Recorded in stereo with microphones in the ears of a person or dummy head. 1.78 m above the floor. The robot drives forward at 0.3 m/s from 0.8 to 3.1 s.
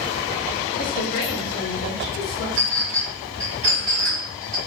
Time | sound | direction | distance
0.8 | a woman speaking | 45° left (ahead or behind) | 1.1 m
2.6 | a clink | 35° right (ahead or behind) | 1.2 m